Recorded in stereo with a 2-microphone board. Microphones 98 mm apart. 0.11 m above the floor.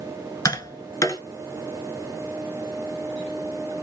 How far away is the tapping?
About 0.9 m.